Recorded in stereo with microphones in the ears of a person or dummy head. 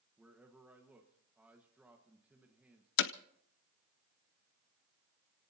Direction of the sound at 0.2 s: 10° right (ahead or behind).